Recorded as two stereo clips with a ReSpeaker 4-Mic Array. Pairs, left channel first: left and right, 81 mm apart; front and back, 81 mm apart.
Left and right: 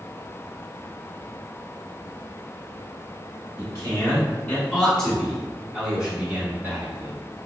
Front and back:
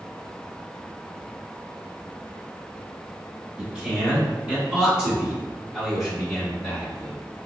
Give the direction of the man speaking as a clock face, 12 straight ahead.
8 o'clock.